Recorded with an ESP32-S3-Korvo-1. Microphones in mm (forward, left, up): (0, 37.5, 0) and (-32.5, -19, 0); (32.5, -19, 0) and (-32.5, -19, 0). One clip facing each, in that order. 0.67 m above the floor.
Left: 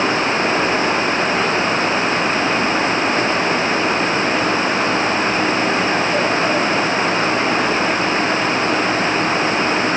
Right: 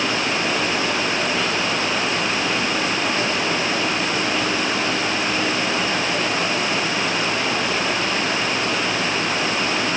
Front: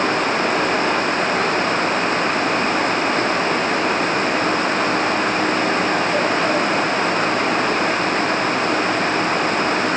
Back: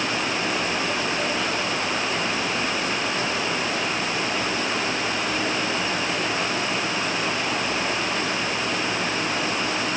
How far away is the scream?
No scream in this recording.